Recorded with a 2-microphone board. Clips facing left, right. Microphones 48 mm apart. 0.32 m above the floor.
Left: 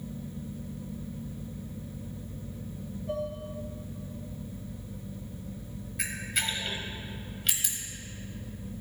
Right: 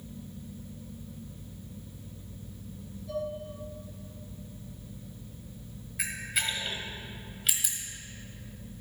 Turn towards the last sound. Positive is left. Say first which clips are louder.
# even
turn(degrees=-5)  # may be behind; listen again after turning